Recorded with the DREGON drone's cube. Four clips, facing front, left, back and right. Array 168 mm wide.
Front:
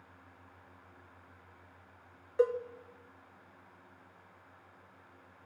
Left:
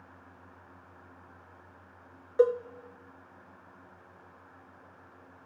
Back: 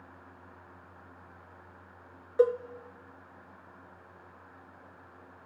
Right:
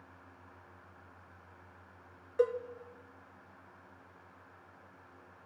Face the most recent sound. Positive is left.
turn(degrees=130)